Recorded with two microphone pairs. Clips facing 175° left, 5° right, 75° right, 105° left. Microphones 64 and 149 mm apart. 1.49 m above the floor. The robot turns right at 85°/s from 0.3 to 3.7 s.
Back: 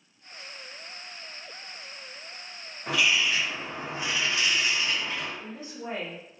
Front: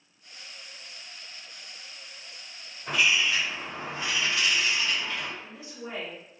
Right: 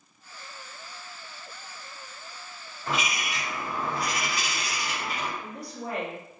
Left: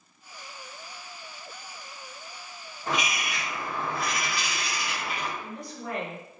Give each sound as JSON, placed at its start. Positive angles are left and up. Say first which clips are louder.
{"t": 2.9, "sound": "a bird", "louder": "even, even", "azimuth_deg": 170, "distance_m": 1.0}
{"t": 5.4, "sound": "a woman speaking", "louder": "back 3 dB, right 1 dB", "azimuth_deg": -130, "distance_m": 0.9}